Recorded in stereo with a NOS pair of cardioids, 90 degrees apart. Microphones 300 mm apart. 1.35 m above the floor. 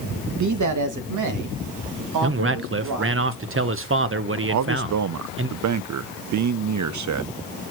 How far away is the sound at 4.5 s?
About 0.5 m.